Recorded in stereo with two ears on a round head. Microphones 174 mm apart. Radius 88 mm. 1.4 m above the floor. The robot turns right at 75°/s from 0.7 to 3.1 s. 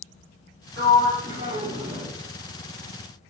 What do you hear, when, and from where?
0.8 s a sliding door: 85° right, 1.6 m; by 2.1 s centre (ahead or behind), 1.6 m